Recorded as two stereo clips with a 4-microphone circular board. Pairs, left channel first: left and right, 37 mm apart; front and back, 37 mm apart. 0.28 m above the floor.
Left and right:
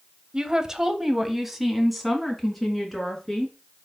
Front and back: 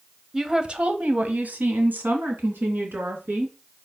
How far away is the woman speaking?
About 0.9 m.